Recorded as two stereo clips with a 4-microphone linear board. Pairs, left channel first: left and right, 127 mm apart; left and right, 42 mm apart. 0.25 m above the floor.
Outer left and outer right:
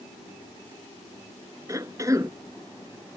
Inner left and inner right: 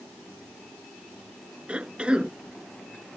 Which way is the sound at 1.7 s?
25° right (ahead or behind).